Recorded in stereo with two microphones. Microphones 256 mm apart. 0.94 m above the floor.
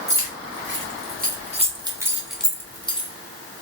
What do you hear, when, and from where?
0.1 s keys jangling: 55° right (ahead or behind), 1.7 m; by 3.1 s 25° left (ahead or behind), 1.2 m